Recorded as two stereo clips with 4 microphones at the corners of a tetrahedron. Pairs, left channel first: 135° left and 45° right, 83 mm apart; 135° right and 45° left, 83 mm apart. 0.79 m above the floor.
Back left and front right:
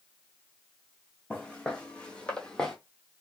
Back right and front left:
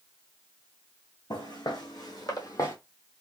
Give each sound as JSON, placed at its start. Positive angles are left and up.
{"t": 1.3, "sound": "footsteps", "azimuth_deg": -150, "distance_m": 1.9}